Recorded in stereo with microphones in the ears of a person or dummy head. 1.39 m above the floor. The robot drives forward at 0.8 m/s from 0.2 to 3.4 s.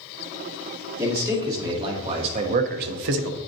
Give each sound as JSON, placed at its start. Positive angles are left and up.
{"t": 1.0, "sound": "a man speaking", "side_deg": -15, "distance_m": 1.9}